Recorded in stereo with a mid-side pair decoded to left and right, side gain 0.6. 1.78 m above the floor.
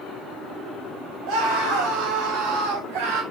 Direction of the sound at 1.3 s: 70° right.